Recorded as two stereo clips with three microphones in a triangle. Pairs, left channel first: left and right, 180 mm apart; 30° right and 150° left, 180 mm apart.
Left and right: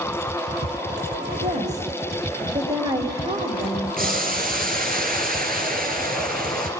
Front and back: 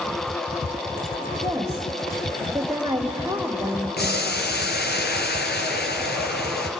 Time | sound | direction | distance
1.4 | a woman speaking | 135° right | 1.8 m
4.0 | boiling | 55° right | 2.5 m